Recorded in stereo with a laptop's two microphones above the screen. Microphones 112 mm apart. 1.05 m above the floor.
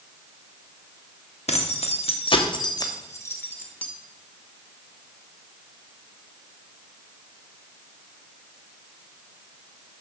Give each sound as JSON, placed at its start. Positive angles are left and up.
{"t": 1.5, "sound": "keys jangling", "side_deg": 75, "distance_m": 1.3}